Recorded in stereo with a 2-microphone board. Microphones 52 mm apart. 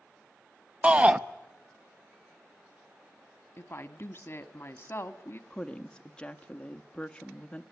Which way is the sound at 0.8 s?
25° right (ahead or behind).